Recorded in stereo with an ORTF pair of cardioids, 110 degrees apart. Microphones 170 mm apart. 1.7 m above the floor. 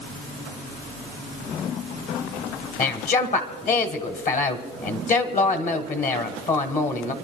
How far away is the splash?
No splash in this recording.